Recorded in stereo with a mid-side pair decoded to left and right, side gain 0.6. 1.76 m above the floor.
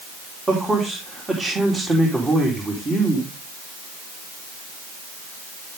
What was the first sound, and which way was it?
A man speaking, 20° right.